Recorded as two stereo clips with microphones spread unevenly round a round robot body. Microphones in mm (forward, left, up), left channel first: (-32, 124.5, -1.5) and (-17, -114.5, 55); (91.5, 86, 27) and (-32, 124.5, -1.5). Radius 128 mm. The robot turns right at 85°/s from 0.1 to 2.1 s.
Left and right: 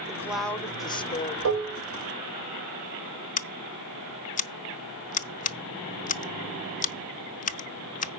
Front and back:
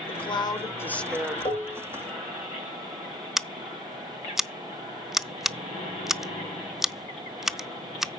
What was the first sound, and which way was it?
A woman speaking, straight ahead.